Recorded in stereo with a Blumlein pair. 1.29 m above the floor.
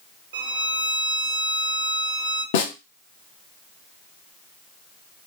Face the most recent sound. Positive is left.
turn(degrees=55)